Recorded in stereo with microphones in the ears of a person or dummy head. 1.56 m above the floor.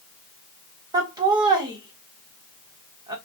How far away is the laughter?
About 0.9 m.